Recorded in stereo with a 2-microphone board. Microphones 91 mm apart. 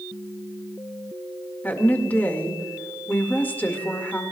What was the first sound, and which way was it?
A woman speaking, 20° left (ahead or behind).